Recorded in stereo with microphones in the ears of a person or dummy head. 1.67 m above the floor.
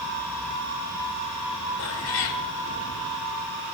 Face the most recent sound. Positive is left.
turn(degrees=70)  # may be behind; listen again after turning